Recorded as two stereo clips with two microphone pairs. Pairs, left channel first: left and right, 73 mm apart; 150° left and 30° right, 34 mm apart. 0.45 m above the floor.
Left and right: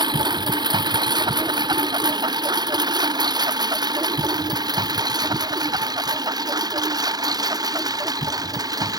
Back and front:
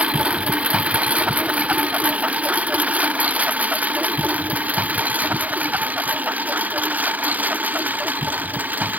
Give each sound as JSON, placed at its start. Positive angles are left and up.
{"t": 0.0, "sound": "a lawn mower", "azimuth_deg": -80}